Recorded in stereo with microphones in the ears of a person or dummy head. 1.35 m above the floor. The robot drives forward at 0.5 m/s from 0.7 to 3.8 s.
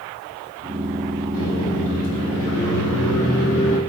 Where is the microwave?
80° left, 2.5 m; by 3.8 s 70° left (ahead or behind), 2.5 m.